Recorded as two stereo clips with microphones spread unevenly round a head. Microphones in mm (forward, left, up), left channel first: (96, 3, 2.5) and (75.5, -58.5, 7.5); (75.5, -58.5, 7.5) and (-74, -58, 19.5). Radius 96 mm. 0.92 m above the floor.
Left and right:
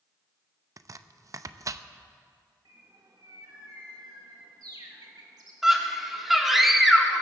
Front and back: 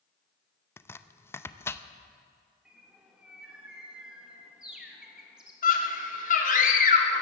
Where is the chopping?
70° right, 0.7 m.